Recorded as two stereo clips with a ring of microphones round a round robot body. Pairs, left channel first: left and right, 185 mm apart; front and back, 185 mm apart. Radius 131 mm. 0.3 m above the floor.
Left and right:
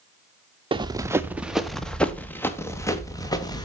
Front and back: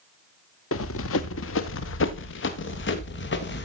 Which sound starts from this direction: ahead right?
Running footsteps, at 0.7 s.